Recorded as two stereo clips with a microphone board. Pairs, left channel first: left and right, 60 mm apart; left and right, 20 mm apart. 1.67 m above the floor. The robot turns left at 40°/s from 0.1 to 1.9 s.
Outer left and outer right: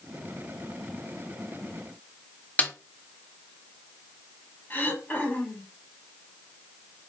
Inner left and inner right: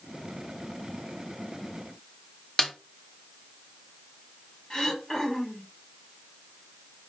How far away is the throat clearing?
About 2 m.